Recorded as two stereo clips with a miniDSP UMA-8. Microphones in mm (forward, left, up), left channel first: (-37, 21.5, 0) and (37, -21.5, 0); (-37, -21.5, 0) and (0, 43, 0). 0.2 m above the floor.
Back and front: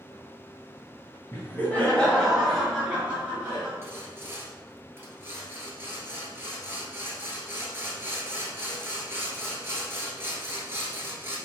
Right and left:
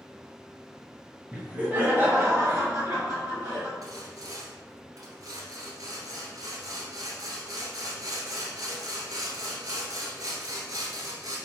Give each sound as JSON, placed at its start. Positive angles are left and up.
{"t": 1.3, "sound": "laughter", "azimuth_deg": 120, "distance_m": 1.6}
{"t": 3.8, "sound": "sawing", "azimuth_deg": 30, "distance_m": 1.3}